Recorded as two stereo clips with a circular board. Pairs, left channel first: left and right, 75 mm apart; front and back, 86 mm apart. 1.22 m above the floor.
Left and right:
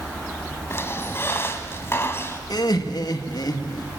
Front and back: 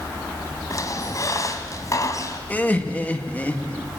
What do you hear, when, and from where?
0.7 s a squeak: 40° left, 2 m
2.5 s laughter: 70° left, 2 m